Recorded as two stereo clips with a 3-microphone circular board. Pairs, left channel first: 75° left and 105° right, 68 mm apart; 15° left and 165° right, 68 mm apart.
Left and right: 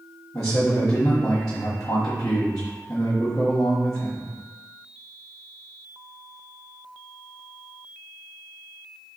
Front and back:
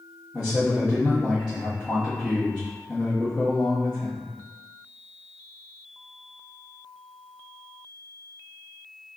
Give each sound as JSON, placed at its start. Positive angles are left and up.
{"t": 0.3, "sound": "a man speaking", "azimuth_deg": 115, "distance_m": 1.4}